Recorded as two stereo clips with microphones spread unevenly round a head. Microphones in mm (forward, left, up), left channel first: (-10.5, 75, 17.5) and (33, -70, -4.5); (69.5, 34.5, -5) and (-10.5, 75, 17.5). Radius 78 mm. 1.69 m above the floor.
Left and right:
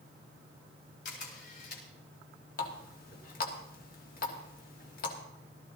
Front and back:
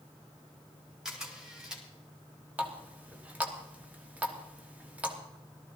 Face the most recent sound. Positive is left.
turn(degrees=85)